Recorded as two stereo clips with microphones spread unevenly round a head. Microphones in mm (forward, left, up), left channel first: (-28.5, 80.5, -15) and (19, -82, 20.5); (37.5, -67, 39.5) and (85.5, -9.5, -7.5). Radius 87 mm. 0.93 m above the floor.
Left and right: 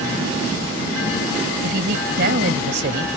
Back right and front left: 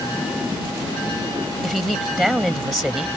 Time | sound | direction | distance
1.6 | a woman speaking | 45° right | ?